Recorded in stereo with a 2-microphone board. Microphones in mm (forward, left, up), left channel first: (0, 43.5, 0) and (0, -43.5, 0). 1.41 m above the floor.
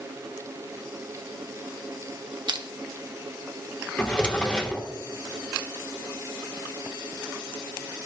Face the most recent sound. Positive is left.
turn(degrees=10)  # may be behind; listen again after turning